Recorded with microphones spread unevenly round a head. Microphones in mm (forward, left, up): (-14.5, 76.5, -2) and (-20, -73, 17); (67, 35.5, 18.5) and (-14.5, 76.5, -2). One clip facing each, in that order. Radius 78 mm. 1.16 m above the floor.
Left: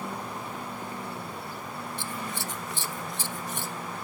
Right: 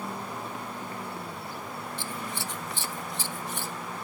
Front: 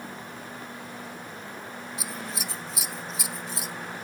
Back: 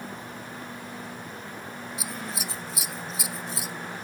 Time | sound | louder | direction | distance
2.0 | scissors | left 1 dB, back 1 dB | 50° left | ?